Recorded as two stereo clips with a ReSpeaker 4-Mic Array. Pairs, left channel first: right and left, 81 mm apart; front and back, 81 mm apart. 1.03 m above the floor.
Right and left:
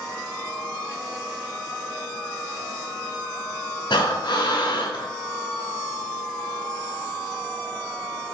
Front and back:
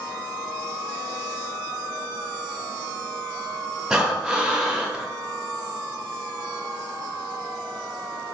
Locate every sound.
3.9 s breathing: 100° right, 0.8 m